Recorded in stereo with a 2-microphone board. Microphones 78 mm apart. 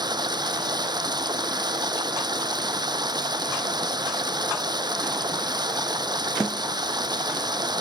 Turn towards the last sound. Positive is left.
turn(degrees=-60)  # may be behind; listen again after turning